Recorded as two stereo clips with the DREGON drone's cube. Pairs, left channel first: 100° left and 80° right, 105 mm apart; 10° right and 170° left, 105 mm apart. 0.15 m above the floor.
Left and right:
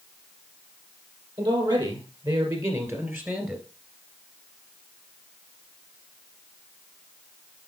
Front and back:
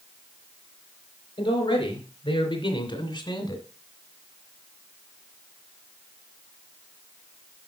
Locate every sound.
1.4 s a man speaking: 45° right, 4 m; by 3.6 s straight ahead, 2 m